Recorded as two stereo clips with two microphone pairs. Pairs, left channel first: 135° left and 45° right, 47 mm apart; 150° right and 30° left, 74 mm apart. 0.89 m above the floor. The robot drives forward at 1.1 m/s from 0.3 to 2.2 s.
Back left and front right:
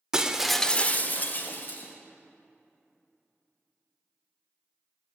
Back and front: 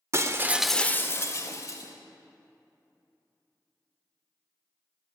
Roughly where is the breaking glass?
Ahead left.